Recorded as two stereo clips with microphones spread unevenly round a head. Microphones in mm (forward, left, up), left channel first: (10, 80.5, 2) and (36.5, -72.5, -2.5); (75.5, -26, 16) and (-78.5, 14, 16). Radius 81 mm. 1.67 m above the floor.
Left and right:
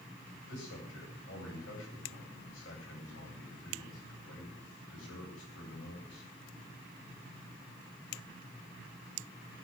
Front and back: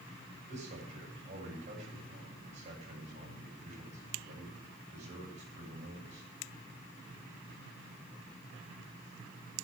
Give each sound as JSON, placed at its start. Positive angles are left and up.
{"t": 0.5, "sound": "a man speaking", "azimuth_deg": 115, "distance_m": 9.0}